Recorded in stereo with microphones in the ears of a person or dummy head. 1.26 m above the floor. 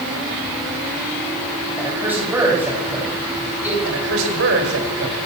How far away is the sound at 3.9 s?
About 5.5 m.